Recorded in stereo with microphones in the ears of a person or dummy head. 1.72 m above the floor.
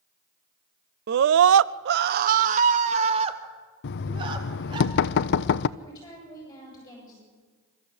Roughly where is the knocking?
Left.